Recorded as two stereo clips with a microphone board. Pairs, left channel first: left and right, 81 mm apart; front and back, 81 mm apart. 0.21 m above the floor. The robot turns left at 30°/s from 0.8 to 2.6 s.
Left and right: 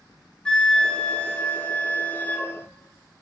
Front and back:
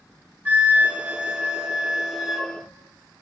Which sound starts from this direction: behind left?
A flute, at 0.5 s.